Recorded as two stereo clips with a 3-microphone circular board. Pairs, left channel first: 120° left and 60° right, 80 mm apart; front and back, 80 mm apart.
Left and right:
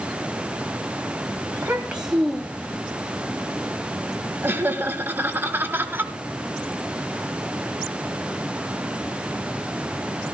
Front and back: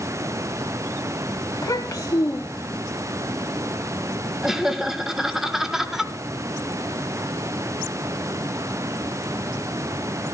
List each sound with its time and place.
1.5 s a child speaking: 10° right, 1.1 m; by 2.8 s 60° left, 1.2 m
4.4 s laughter: 100° right, 1.3 m